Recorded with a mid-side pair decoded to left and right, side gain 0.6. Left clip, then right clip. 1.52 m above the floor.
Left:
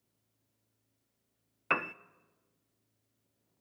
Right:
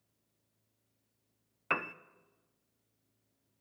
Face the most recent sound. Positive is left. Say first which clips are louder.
# left 2 dB
turn(degrees=10)